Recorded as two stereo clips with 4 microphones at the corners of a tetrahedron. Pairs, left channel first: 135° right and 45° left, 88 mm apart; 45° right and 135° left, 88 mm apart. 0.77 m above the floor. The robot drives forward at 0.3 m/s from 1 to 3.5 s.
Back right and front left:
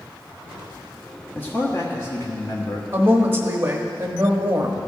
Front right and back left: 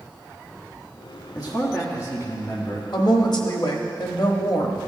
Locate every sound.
1.4 s a man speaking: 75° right, 1.2 m; by 2.8 s 100° right, 1.2 m
2.9 s a woman speaking: 15° right, 1.1 m; by 4.9 s 20° right, 1.0 m